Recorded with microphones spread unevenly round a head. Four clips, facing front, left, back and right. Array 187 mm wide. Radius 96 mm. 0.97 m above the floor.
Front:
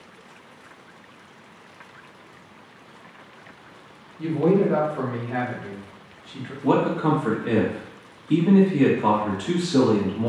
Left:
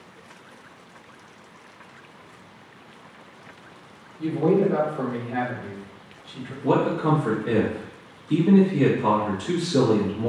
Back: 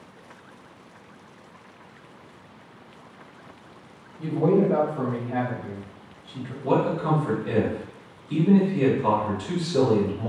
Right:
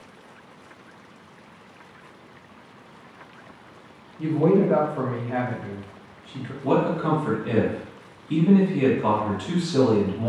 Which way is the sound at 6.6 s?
Straight ahead.